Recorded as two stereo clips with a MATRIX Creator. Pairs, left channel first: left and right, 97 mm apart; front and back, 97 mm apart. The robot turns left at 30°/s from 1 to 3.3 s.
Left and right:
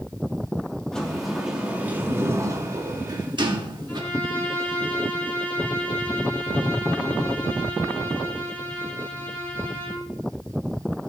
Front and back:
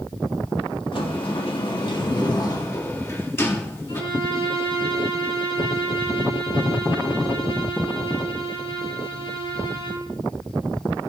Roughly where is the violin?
Ahead.